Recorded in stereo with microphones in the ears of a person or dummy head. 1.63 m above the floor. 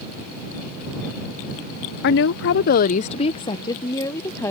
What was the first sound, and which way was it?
A woman speaking, 50° left (ahead or behind).